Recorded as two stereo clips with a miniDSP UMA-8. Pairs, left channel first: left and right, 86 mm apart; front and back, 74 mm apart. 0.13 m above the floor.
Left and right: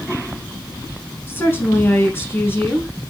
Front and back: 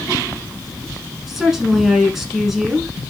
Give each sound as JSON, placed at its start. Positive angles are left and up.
{"t": 1.3, "sound": "a woman speaking", "azimuth_deg": 100, "distance_m": 1.1}